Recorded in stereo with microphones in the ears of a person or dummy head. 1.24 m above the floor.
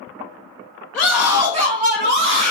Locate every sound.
0.9 s a scream: 5° left (ahead or behind), 0.5 m; by 2.5 s 75° right (ahead or behind), 0.9 m